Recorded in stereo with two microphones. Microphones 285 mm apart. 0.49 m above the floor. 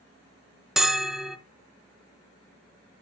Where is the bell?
Centre (ahead or behind), 0.8 m.